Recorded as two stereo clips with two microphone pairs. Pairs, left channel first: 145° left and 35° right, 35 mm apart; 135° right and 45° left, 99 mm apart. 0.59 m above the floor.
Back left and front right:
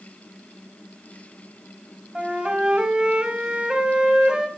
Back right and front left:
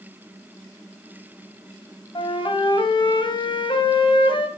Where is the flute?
100° right, 3 m.